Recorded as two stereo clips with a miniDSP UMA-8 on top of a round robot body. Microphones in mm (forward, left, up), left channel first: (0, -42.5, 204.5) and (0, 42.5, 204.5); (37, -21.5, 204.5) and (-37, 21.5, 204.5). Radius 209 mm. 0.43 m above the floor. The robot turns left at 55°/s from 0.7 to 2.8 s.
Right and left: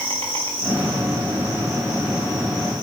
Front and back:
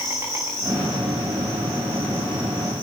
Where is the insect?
90° left, 6.5 m; by 2.8 s 25° right, 6.5 m.